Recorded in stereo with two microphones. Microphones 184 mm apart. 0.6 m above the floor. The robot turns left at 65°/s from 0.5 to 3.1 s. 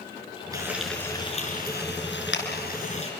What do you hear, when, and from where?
0.5 s frying: 20° right (ahead or behind), 5 m; by 3.1 s 35° left (ahead or behind), 5 m